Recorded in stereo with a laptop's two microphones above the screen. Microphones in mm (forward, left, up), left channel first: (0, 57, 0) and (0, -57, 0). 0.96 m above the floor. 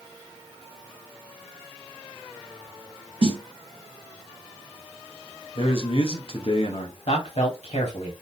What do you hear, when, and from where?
3.2 s a snare drum: 50° right (ahead or behind), 0.8 m
5.5 s a man speaking: 55° left (ahead or behind), 0.8 m
7.1 s a man speaking: 65° left (ahead or behind), 1.8 m